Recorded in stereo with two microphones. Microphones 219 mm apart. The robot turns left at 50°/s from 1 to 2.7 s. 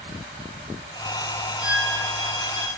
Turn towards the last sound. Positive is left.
turn(degrees=15)